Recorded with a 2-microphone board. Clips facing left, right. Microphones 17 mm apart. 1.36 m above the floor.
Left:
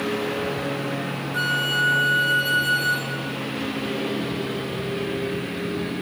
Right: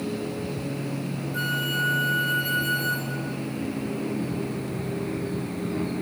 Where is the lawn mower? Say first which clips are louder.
Left 5 dB; 80° left; by 6.0 s 75° left (ahead or behind).